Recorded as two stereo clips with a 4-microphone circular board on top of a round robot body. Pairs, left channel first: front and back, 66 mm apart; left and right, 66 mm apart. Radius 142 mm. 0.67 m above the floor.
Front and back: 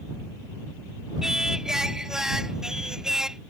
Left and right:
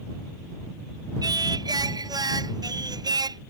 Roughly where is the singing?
Right.